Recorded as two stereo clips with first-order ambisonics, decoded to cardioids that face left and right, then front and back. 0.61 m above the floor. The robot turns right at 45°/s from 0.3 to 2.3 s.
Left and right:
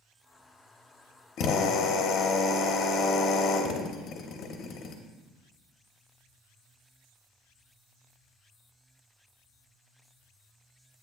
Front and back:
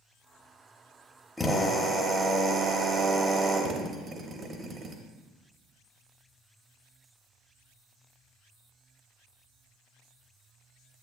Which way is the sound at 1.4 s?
80° left.